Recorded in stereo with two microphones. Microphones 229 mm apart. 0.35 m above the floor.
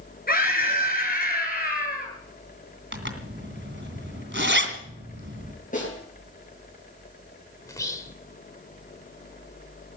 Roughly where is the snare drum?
Left.